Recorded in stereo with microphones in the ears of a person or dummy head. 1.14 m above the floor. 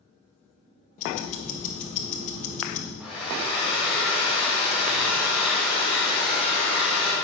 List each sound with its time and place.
1.0 s ticking: 45° left (ahead or behind), 1.3 m
3.0 s a hair dryer: 10° right (ahead or behind), 2.5 m